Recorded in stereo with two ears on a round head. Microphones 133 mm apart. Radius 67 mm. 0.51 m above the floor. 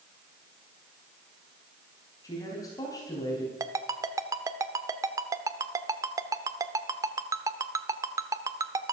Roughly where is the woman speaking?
Left.